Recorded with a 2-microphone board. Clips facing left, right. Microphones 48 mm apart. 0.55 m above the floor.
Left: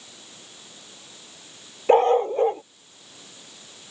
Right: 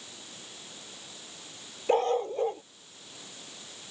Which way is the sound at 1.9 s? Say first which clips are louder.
Left 9 dB; 40° left (ahead or behind).